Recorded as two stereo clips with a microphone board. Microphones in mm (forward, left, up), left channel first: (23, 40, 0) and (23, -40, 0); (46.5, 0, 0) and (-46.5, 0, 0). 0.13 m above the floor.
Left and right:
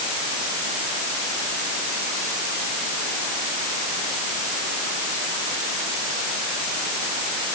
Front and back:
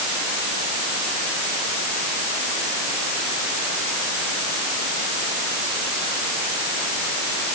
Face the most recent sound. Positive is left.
No sound to turn to.